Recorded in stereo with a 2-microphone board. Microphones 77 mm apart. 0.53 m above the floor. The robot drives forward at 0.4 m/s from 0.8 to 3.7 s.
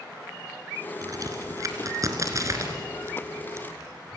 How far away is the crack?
About 3 m.